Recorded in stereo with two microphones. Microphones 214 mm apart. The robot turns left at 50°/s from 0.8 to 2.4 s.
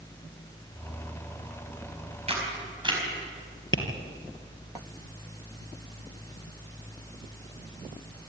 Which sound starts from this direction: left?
Tapping, at 3.7 s.